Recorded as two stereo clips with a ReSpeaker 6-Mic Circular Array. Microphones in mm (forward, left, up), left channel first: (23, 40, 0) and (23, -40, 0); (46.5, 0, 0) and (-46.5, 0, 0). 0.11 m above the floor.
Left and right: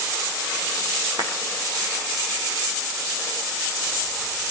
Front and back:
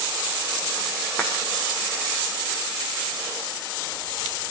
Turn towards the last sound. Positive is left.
turn(degrees=-70)